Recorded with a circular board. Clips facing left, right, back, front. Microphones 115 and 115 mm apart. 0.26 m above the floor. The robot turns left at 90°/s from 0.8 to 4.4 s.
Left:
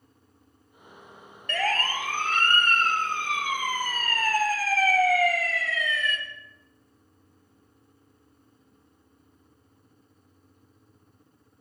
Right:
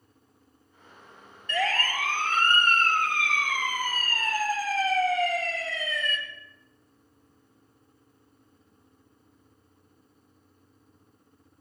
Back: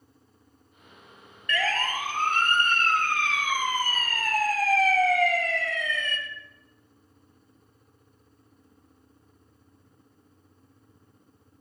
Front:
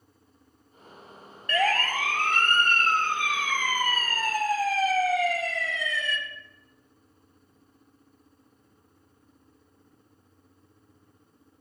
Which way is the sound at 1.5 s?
60° left.